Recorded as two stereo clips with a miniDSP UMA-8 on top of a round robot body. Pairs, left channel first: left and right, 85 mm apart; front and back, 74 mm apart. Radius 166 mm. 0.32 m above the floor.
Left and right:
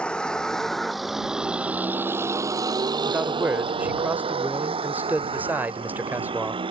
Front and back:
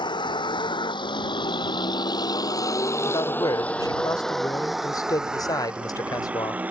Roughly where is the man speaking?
Ahead right.